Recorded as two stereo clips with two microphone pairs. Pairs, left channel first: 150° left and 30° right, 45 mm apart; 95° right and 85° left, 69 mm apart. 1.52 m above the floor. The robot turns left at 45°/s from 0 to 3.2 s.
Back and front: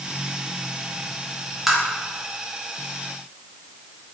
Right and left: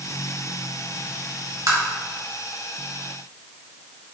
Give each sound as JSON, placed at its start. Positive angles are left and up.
{"t": 1.7, "sound": "tapping", "azimuth_deg": 55, "distance_m": 1.9}